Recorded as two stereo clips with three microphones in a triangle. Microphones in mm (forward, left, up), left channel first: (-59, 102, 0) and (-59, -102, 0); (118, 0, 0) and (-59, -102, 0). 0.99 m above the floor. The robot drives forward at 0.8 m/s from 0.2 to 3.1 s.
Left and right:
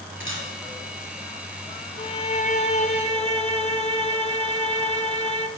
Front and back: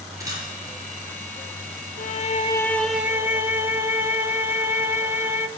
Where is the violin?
40° left, 0.9 m; by 5.5 s 135° left, 0.9 m.